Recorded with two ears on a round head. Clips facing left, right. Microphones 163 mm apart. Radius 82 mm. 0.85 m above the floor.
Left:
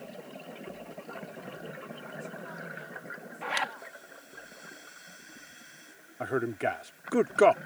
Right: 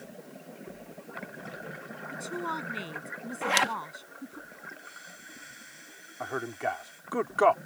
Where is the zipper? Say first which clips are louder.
Right 6 dB; 55° right (ahead or behind).